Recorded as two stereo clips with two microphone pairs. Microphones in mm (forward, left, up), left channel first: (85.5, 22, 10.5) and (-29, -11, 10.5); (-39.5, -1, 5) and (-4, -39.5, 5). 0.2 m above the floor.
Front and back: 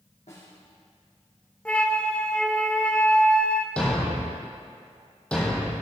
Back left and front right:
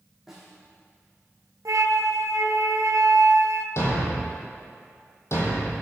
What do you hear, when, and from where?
0.3 s a snare drum: 35° left, 4.5 m
1.6 s a flute: 60° right, 0.8 m
3.8 s a thud: 95° left, 2.5 m